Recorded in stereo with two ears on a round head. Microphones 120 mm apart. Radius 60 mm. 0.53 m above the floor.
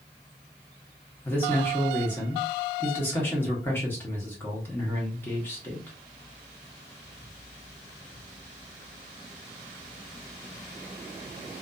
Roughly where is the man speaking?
Centre.